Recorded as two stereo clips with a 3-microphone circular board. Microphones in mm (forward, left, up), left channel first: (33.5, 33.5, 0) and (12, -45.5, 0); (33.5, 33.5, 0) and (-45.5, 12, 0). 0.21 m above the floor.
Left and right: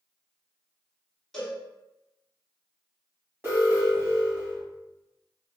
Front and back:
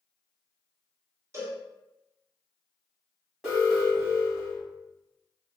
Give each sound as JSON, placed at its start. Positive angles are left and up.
{"t": 1.3, "sound": "a cowbell", "azimuth_deg": 155, "distance_m": 1.0}
{"t": 3.4, "sound": "an alarm", "azimuth_deg": -90, "distance_m": 1.6}